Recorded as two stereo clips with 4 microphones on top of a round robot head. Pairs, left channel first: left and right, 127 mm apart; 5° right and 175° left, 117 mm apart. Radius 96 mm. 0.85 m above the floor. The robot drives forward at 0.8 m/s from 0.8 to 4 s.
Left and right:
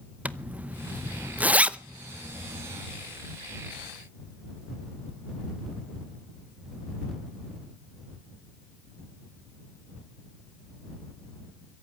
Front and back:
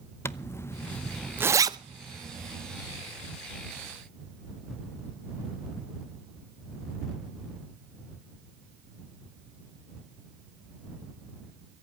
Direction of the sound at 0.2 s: 30° right.